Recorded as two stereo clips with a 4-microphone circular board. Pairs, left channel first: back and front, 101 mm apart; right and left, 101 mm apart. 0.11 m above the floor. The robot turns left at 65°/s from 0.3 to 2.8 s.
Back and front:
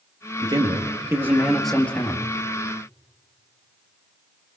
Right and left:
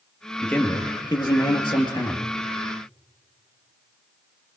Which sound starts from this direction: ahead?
A man speaking, at 0.4 s.